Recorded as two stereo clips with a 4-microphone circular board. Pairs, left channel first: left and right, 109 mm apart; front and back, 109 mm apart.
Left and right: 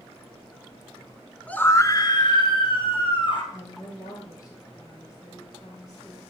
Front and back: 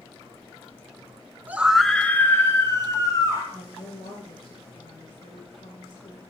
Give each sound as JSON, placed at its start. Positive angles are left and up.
{"t": 1.5, "sound": "a scream", "azimuth_deg": 145, "distance_m": 1.0}
{"t": 3.5, "sound": "a woman speaking", "azimuth_deg": 35, "distance_m": 5.0}